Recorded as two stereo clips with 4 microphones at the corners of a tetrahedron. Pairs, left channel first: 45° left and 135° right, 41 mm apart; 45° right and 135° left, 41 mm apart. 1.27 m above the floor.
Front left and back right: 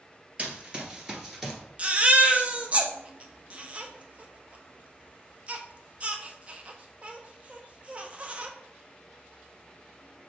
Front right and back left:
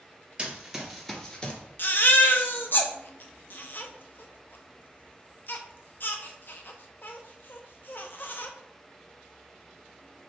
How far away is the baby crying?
About 0.6 m.